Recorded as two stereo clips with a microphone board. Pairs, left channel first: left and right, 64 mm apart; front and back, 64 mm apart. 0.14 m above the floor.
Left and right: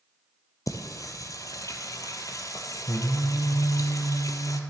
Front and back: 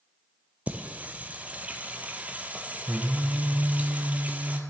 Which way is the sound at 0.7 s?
115° left.